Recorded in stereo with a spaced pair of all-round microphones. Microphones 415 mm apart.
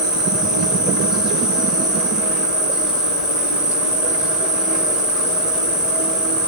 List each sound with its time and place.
0.0 s an insect: centre (ahead or behind), 1.0 m